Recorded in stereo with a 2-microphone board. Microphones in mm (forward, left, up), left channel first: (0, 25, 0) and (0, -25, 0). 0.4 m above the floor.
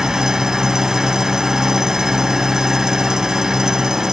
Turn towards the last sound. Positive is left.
turn(degrees=-10)  # may be behind; listen again after turning